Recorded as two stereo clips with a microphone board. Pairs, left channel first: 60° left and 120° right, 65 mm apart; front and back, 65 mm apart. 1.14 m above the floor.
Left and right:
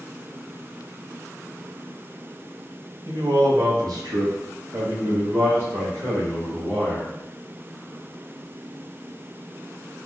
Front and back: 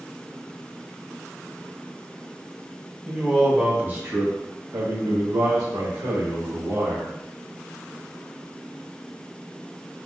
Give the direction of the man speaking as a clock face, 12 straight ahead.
3 o'clock.